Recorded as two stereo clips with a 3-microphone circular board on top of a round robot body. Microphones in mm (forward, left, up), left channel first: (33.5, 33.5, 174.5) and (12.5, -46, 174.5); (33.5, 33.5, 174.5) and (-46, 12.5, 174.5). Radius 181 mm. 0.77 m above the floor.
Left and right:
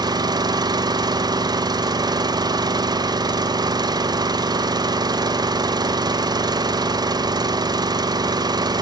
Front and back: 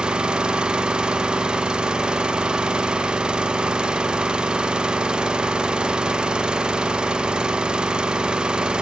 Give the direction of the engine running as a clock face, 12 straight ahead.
3 o'clock.